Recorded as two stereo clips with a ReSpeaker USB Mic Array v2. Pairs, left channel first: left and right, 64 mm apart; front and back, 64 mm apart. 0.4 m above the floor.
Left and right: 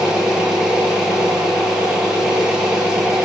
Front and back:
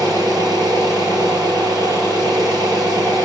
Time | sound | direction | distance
0.0 | an engine running | 170° right | 10 m